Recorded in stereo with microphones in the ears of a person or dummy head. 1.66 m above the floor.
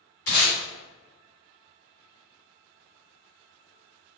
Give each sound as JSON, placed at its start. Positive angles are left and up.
{"t": 0.3, "sound": "tape being pulled", "side_deg": 50, "distance_m": 1.7}